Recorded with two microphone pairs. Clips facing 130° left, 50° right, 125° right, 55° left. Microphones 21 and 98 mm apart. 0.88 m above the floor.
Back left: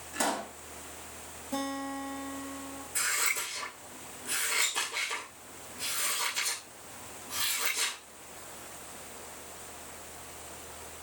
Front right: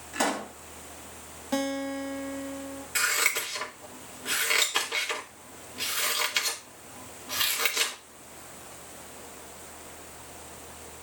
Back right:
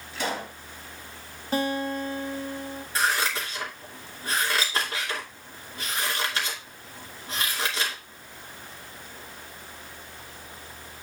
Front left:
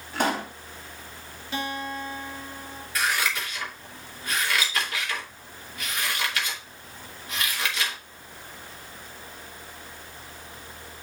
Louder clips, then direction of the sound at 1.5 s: Front right 5 dB, back right 5 dB; 80° right.